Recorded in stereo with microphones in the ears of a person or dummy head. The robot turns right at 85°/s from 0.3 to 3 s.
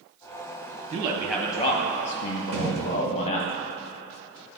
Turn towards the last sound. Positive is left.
turn(degrees=-60)  # may be behind; listen again after turning